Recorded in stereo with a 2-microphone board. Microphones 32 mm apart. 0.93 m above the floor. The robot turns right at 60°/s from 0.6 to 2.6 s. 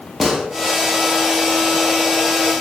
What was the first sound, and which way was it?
A gunshot, 5° right (ahead or behind).